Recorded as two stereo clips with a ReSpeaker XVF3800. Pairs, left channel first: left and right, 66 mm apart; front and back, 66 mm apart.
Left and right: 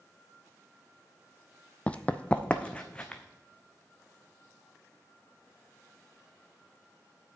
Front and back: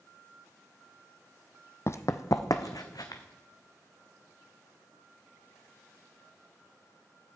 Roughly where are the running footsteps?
Ahead left.